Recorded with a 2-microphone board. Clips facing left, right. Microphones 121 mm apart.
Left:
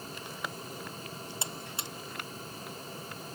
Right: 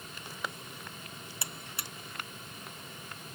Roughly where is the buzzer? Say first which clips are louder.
Left 4 dB; left.